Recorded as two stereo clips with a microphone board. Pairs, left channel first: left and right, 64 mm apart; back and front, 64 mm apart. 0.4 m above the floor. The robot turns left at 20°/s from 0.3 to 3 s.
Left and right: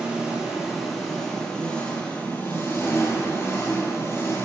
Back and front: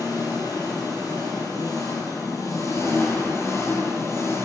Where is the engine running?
170° right, 3.5 m; by 4.5 s 135° left, 3.5 m.